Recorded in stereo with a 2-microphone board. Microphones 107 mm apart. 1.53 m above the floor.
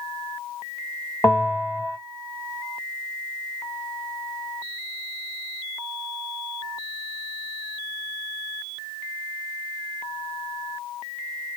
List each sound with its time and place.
1.2 s a bell: 25° left (ahead or behind), 1.3 m